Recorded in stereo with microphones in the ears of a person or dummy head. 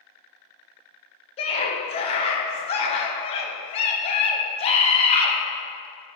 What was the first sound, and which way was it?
A scream, 35° left (ahead or behind).